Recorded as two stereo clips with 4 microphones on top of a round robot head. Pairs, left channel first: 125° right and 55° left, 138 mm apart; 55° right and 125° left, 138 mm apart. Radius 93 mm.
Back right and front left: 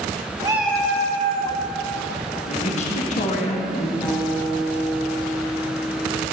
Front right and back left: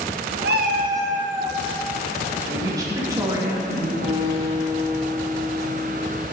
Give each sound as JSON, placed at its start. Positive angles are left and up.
{"t": 0.4, "sound": "a cat meowing", "azimuth_deg": 110, "distance_m": 0.7}
{"t": 2.5, "sound": "a woman speaking", "azimuth_deg": -165, "distance_m": 2.0}
{"t": 4.0, "sound": "a guitar", "azimuth_deg": 145, "distance_m": 4.0}